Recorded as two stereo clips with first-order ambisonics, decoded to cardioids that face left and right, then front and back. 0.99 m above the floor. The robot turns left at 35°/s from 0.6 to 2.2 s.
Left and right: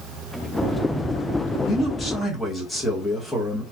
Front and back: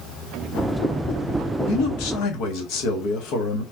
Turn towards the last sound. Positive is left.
turn(degrees=10)